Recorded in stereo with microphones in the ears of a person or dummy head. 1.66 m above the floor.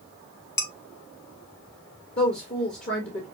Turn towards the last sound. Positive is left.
turn(degrees=35)  # may be behind; listen again after turning